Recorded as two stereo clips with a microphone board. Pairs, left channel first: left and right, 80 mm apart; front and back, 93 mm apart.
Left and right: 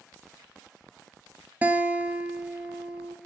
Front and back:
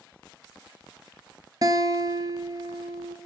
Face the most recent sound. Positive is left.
turn(degrees=-150)